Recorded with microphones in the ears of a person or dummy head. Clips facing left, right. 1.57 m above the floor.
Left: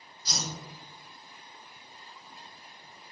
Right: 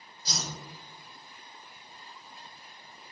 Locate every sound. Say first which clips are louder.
0.2 s a whoosh: left 1 dB; 30° right (ahead or behind), 1.0 m